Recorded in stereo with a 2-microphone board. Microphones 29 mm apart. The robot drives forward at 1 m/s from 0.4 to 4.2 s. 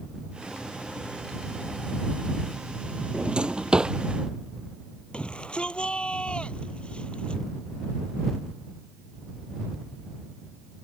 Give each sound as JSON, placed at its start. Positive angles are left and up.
{"t": 3.1, "sound": "a drawer", "side_deg": -40}
{"t": 5.1, "sound": "a shout", "side_deg": 35}